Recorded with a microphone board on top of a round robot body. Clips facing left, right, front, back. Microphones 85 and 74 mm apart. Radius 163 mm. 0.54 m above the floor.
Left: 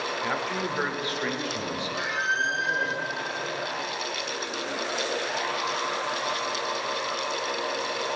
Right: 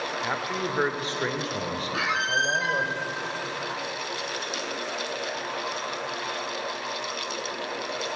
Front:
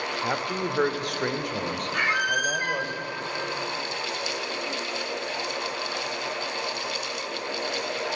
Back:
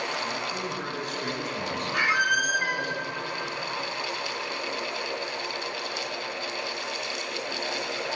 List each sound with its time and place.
0.2 s a man speaking: 5° right, 2.5 m; by 2.9 s 55° right, 3.5 m
1.9 s a squeak: 95° right, 1.6 m